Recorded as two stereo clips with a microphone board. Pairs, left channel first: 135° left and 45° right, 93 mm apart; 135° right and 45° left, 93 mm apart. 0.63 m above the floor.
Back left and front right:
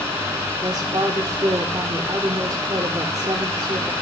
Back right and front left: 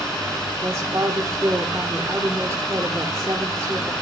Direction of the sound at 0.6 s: 10° right.